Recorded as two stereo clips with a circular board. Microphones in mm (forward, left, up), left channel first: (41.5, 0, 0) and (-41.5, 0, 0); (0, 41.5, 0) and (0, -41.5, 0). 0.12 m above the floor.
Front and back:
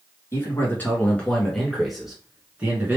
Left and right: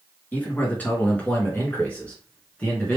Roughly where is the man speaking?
Ahead left.